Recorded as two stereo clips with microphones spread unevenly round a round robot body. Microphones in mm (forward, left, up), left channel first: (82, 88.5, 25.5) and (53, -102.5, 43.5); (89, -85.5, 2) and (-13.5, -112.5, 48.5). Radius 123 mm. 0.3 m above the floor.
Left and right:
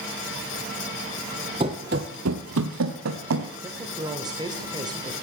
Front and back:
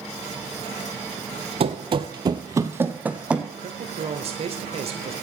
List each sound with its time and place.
1.6 s running footsteps: 165° right, 0.7 m; by 3.5 s 90° right, 1.2 m
3.6 s a woman speaking: 160° right, 1.1 m